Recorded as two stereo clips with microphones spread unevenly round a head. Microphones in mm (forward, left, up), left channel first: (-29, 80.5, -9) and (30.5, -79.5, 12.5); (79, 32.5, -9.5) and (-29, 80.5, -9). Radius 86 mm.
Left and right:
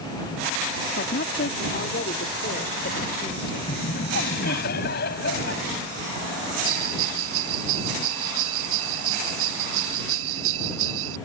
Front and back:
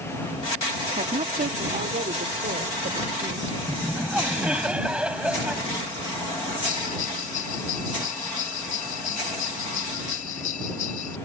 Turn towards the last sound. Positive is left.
turn(degrees=-75)